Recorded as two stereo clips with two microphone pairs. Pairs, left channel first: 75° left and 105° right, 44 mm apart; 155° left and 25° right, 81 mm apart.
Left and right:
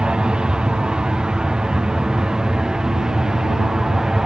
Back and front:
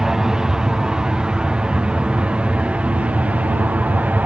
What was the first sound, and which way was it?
An aircraft, 90° right.